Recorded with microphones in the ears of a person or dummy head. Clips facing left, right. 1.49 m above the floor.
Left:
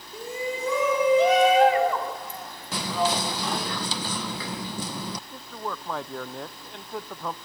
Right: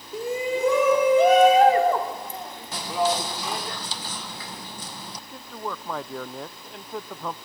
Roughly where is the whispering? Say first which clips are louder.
Right 1 dB; left.